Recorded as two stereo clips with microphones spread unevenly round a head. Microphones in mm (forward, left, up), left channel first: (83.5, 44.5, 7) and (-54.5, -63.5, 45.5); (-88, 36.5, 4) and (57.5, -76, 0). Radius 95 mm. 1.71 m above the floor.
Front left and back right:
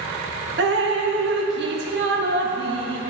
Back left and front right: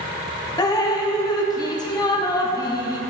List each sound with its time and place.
0.6 s dripping: 150° right, 0.7 m